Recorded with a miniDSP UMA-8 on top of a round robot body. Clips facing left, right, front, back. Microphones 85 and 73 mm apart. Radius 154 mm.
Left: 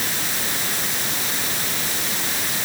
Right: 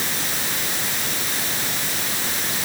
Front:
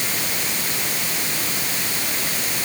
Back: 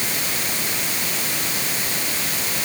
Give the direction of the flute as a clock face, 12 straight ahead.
No flute in this recording.